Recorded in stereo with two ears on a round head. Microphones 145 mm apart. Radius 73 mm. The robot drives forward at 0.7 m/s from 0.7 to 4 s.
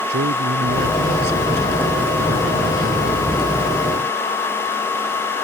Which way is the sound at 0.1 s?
70° right (ahead or behind).